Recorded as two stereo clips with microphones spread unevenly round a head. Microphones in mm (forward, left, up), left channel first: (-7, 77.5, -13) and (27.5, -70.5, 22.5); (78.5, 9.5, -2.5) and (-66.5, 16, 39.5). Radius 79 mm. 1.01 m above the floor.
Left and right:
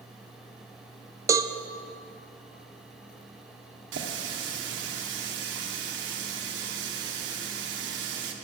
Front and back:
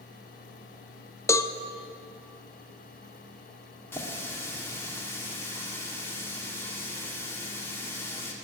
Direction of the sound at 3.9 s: 75° right.